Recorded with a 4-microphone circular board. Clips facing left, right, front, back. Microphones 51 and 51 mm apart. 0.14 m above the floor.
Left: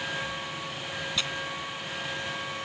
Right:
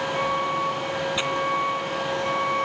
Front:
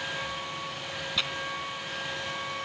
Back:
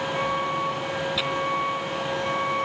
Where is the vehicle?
130° right.